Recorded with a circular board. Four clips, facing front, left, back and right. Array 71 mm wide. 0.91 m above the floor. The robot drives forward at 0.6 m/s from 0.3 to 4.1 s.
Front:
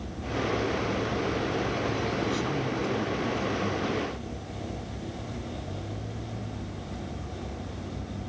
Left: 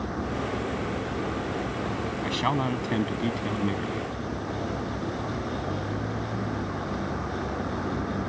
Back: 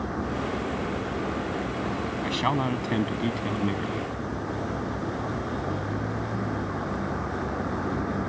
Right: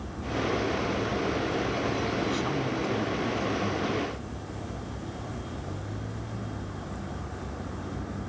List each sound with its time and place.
0.0 s a vehicle: 150° left; by 8.3 s 155° left
2.2 s a man speaking: 145° left; by 4.1 s 150° left